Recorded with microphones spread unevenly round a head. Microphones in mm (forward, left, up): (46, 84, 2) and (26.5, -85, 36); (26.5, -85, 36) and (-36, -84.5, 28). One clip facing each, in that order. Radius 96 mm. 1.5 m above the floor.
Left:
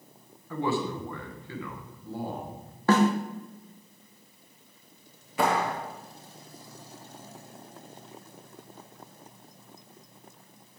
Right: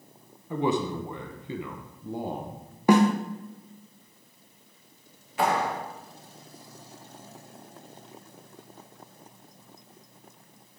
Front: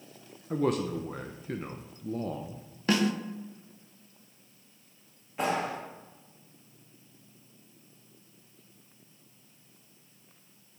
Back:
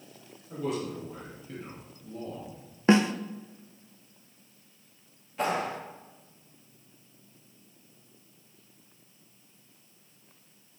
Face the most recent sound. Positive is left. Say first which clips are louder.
# even, even
turn(degrees=80)